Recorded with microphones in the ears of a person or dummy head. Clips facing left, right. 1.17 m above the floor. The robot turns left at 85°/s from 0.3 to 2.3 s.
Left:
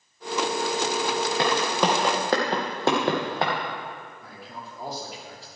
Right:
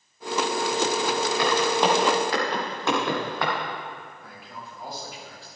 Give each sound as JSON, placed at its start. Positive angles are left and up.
{"t": 1.4, "sound": "footsteps", "side_deg": 35, "distance_m": 2.5}
{"t": 4.2, "sound": "a man speaking", "side_deg": 35, "distance_m": 2.5}